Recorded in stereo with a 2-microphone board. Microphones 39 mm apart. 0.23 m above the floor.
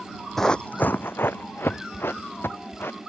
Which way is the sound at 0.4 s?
10° left (ahead or behind).